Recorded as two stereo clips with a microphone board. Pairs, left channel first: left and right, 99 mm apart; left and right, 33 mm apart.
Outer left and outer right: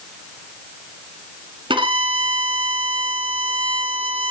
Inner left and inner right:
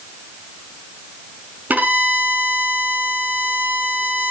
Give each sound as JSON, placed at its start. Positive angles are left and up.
{"t": 1.7, "sound": "a violin", "side_deg": -55, "distance_m": 5.0}